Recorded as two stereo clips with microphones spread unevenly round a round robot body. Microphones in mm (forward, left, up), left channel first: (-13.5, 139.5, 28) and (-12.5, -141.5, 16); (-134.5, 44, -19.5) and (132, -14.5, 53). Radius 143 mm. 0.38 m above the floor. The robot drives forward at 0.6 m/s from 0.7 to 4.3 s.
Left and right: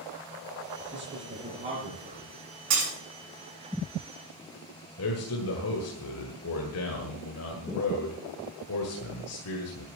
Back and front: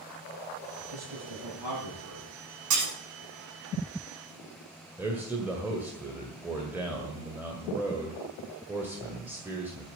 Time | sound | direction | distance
0.9 | a man speaking | 25° right | 8 m
2.7 | breaking glass | 40° right | 7 m
5.0 | a man speaking | 80° left | 2 m